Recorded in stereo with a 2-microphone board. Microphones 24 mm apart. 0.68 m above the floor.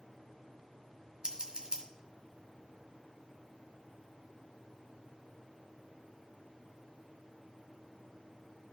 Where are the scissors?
35° right (ahead or behind), 1.5 m.